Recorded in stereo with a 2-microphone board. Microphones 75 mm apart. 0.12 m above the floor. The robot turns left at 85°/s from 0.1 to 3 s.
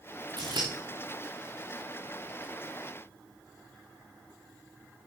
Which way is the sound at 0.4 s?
85° right.